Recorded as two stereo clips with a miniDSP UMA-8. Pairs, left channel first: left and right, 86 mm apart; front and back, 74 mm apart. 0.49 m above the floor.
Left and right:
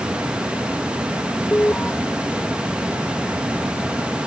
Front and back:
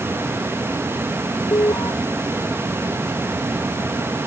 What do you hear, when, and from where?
1.5 s an alarm: 20° left